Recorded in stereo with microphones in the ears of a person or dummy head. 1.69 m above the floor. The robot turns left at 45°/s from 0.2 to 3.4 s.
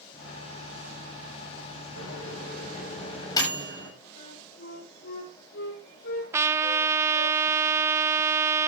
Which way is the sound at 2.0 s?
85° left.